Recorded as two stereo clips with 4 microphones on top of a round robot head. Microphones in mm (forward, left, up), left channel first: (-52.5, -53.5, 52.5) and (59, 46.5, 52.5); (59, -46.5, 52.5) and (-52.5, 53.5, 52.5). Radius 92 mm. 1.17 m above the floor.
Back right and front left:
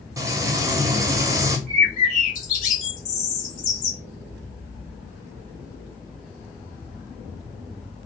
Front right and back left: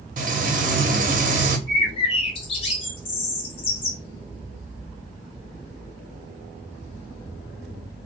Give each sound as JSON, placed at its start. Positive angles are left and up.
{"t": 0.2, "sound": "frying", "azimuth_deg": 110, "distance_m": 0.8}
{"t": 1.7, "sound": "a bird", "azimuth_deg": -100, "distance_m": 1.0}